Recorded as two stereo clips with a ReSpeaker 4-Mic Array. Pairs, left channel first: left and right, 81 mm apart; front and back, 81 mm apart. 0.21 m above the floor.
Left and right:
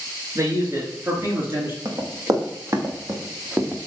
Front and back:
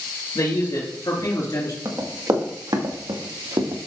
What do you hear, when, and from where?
0.3 s a man speaking: 40° right, 3.5 m; by 1.8 s 30° right, 3 m
1.9 s running footsteps: 135° right, 2 m; by 3.8 s 160° right, 1.8 m